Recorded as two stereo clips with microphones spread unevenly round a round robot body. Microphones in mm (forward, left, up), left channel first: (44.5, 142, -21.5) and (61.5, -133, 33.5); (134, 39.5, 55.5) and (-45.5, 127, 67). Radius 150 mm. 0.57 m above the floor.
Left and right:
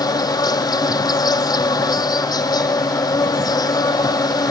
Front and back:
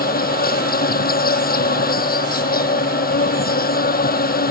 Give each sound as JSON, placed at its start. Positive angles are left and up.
{"t": 0.0, "sound": "an insect", "azimuth_deg": 15}